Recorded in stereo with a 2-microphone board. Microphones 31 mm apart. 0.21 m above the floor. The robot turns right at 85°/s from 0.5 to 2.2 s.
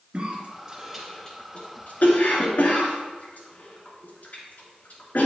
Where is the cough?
35° right (ahead or behind), 2.5 m; by 5.2 s 60° left (ahead or behind), 2.5 m.